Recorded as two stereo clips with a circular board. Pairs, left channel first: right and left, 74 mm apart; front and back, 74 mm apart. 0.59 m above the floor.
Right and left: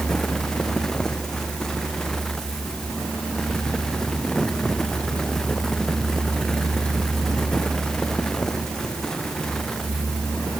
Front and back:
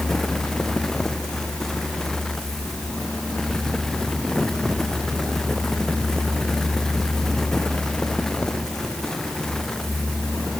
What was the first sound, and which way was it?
Only background noise.